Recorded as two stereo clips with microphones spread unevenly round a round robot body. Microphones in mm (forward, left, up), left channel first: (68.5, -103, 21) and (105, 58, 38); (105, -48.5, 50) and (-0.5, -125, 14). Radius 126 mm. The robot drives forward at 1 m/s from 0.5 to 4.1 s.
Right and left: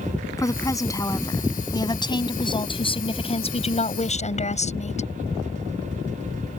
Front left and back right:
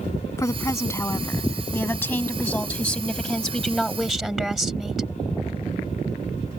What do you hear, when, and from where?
0.4 s a woman speaking: 30° right; by 5.1 s 55° right